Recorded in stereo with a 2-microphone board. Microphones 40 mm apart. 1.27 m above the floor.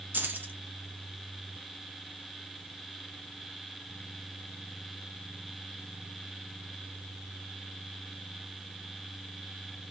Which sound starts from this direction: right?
Keys jangling, at 0.1 s.